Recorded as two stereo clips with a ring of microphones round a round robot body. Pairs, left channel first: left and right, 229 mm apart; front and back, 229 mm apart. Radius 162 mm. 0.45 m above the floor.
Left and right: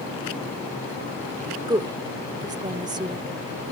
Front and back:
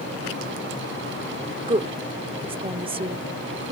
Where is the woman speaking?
140° right.